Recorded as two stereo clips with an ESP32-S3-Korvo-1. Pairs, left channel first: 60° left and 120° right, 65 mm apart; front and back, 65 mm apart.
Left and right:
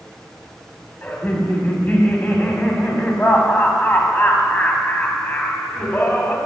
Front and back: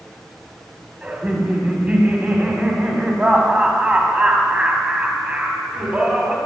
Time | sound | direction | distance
1.0 | laughter | 115° left | 1.6 m